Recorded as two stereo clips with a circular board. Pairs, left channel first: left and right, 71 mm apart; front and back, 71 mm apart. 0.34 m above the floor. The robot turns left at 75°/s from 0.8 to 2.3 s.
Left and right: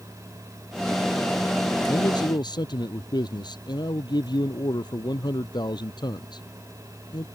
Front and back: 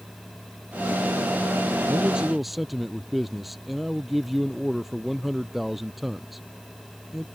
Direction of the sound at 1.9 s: 120° left.